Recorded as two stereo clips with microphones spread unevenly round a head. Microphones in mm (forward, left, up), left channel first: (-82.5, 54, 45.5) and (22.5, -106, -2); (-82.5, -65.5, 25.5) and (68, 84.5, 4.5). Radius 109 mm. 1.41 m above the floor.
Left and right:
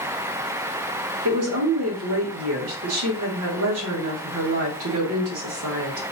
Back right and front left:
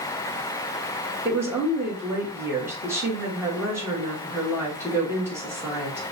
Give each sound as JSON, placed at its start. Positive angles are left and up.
{"t": 1.2, "sound": "a woman speaking", "azimuth_deg": -35, "distance_m": 1.8}